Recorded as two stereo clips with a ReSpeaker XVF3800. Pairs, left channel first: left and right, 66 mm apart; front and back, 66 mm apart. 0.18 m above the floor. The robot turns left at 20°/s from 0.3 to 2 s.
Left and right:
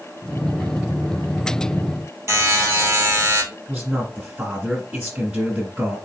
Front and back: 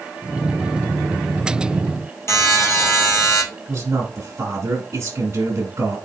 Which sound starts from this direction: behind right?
A man speaking, at 3.7 s.